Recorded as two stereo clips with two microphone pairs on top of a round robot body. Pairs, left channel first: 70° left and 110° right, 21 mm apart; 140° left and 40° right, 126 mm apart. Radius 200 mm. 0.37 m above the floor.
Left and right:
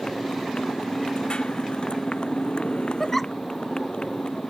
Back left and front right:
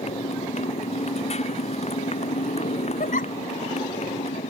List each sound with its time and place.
0.0 s a motorcycle: 105° left
3.0 s a giggle: 145° left